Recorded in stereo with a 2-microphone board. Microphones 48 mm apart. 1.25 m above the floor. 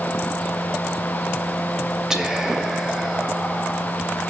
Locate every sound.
2.1 s whispering: 15° right (ahead or behind), 1.2 m